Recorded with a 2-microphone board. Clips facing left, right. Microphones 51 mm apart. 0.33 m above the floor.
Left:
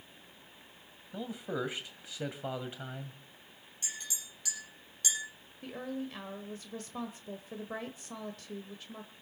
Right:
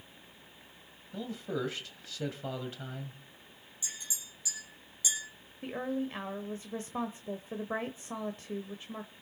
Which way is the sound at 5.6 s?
30° right (ahead or behind).